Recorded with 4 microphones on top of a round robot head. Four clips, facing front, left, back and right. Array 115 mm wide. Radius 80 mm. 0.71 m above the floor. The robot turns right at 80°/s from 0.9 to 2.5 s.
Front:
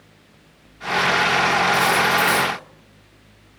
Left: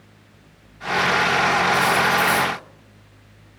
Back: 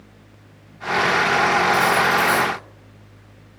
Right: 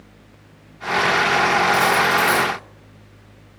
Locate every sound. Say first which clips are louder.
1.7 s cutlery clinking: right 1 dB, back 1 dB; 90° right, 6 m; by 2.5 s 30° right, 6 m